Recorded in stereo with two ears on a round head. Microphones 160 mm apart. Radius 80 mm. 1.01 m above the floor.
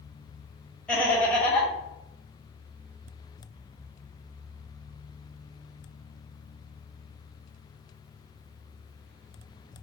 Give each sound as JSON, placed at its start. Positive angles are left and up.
{"t": 0.9, "sound": "laughter", "side_deg": 5, "distance_m": 1.2}